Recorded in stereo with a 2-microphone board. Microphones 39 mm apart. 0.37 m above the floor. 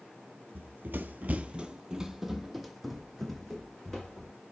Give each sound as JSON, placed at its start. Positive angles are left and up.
{"t": 0.6, "sound": "running footsteps", "side_deg": -55, "distance_m": 0.5}